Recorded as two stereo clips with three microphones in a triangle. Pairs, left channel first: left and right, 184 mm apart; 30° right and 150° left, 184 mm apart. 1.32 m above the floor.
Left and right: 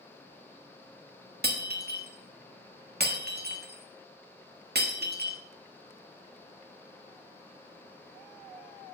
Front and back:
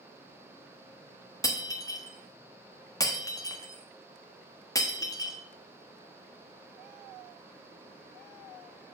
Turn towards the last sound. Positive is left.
turn(degrees=-100)